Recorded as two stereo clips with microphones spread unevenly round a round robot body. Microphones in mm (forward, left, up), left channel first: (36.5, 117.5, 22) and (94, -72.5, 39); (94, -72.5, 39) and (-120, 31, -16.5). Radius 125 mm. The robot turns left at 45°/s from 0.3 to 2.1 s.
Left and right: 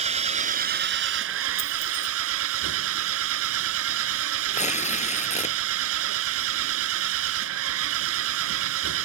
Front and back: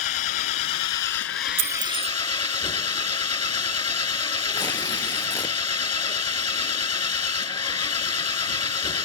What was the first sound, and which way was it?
An engine running, 15° right.